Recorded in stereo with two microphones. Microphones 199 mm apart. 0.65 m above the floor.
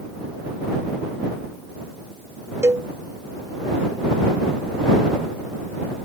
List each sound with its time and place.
2.6 s a cowbell: 15° right (ahead or behind)